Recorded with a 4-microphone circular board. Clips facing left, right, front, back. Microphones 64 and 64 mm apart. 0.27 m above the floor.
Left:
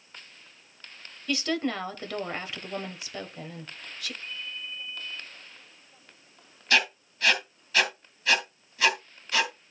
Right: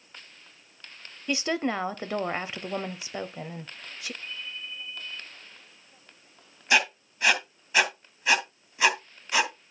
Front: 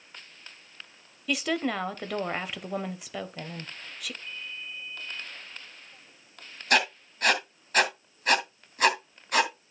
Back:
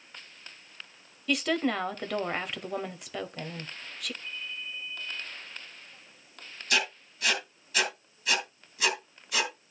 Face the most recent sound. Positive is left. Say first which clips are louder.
# right 1 dB, front 5 dB
turn(degrees=-25)